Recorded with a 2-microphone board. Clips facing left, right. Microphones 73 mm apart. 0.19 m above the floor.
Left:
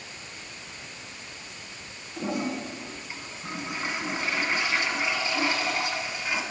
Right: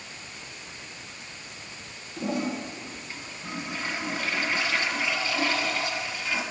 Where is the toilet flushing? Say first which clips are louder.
Right 1 dB; 20° left (ahead or behind), 1.4 m.